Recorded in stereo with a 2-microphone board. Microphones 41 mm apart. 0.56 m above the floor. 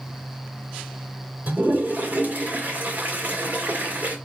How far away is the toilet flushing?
About 1.9 m.